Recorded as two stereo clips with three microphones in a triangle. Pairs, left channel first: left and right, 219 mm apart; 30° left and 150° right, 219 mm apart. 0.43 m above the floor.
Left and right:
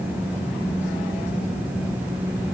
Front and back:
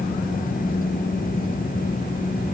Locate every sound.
Only background noise.